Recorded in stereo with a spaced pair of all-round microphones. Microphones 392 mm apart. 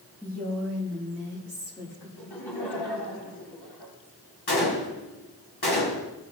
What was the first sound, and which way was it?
A woman speaking, 10° left (ahead or behind).